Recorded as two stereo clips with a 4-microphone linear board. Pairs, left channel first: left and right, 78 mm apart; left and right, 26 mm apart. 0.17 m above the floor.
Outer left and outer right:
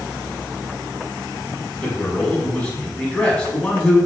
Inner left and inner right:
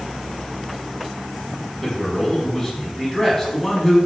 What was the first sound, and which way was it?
A man speaking, 10° left (ahead or behind).